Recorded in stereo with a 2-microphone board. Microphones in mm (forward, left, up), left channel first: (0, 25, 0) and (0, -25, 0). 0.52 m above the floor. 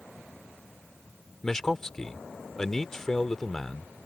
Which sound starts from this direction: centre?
A man speaking, at 1.4 s.